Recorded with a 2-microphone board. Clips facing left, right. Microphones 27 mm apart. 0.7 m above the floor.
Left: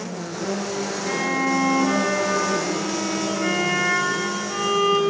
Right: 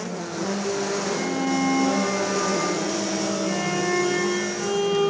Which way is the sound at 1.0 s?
80° left.